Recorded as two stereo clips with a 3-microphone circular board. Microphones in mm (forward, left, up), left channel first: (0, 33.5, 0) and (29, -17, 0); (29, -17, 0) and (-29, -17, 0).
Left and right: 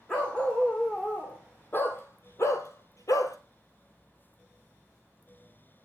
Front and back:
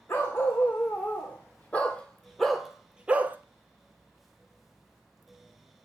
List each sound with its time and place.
0.1 s a dog barking: 50° left, 2.5 m; by 3.4 s 125° left, 0.9 m